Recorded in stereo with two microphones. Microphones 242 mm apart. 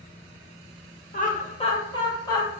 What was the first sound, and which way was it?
Laughter, 35° left (ahead or behind).